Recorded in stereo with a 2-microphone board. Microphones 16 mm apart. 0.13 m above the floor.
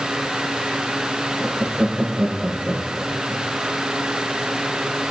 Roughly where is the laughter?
Right.